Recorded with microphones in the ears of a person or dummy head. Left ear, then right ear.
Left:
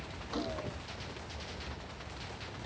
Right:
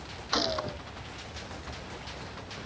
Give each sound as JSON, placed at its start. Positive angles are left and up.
{"t": 0.3, "sound": "a gunshot", "side_deg": -55}